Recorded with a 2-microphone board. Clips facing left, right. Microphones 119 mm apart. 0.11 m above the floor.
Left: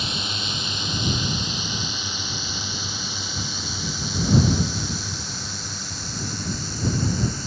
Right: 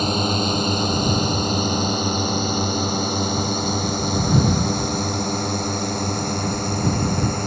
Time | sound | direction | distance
0.0 | a drone | 45° right (ahead or behind) | ?